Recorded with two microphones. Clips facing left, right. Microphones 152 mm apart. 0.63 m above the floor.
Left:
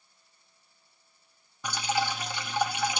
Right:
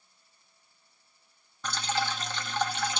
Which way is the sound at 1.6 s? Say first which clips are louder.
Left 2 dB; 10° left (ahead or behind).